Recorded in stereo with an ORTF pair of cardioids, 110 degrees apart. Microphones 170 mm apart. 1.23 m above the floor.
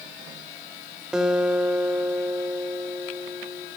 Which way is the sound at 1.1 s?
5° right.